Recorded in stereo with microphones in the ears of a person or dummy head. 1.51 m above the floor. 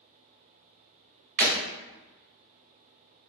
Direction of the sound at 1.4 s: 35° right (ahead or behind).